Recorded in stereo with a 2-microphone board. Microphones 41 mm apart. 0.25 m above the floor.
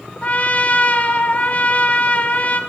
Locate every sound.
0.2 s a trumpet: 40° left (ahead or behind), 2 m